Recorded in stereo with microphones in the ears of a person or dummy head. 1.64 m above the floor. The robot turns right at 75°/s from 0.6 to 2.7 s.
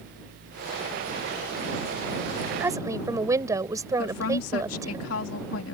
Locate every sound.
2.6 s a woman speaking: 10° right (ahead or behind); by 5.0 s 15° right (ahead or behind)
4.0 s a woman speaking: 75° left (ahead or behind)